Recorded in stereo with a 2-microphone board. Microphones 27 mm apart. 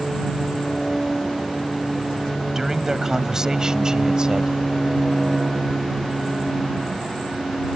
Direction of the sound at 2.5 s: 20° right (ahead or behind).